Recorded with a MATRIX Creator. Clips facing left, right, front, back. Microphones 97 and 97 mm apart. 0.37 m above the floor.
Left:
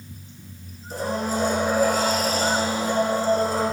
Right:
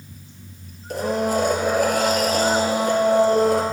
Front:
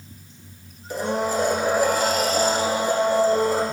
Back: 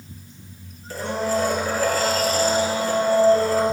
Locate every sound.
0.9 s a blender: 70° right, 1.8 m